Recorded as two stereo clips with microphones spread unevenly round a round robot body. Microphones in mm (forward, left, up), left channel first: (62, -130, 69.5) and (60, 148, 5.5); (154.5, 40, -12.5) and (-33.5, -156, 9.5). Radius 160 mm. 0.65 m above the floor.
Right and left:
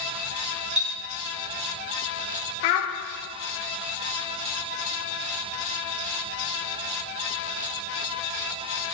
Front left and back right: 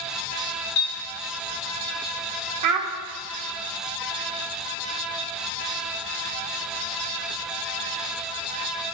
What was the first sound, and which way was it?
A clink, 25° left.